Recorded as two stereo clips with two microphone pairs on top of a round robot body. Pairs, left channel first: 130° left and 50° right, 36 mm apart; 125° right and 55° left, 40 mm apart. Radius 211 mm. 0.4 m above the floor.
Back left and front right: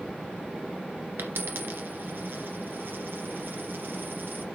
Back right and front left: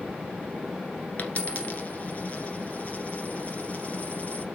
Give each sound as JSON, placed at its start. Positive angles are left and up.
{"t": 1.2, "sound": "a dropped coin", "azimuth_deg": -70, "distance_m": 1.6}